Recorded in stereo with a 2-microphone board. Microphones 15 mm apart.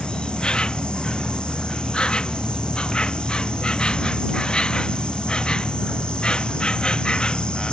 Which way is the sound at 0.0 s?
80° left.